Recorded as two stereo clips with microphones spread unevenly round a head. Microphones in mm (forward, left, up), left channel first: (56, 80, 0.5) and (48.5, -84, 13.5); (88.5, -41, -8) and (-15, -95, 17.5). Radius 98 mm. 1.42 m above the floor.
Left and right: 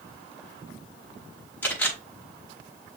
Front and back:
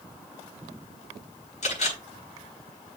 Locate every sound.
1.6 s a camera shutter: 5° left, 5.5 m